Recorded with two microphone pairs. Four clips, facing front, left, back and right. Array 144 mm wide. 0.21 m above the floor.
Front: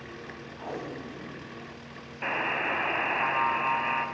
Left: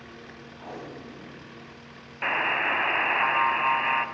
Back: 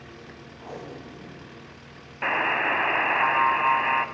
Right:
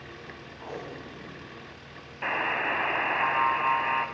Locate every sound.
0.6 s tape being pulled: 5° left, 6 m
2.2 s a buzzer: 160° left, 0.5 m